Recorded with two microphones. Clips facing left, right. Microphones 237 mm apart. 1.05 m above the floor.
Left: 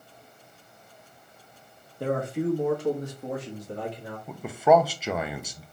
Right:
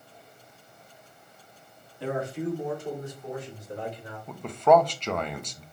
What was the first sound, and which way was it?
A man speaking, 50° left (ahead or behind).